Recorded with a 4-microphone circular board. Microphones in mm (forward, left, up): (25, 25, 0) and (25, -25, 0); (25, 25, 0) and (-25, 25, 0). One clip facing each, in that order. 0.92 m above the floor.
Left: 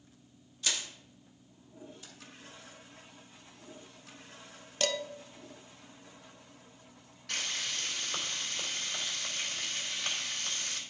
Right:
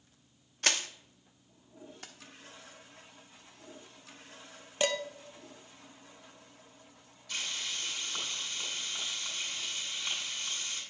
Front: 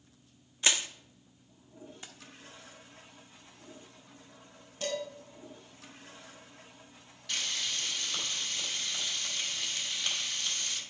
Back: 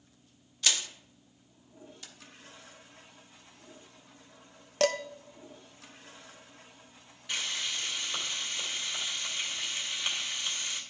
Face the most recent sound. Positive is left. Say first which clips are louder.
# left 2 dB, back 1 dB
turn(degrees=110)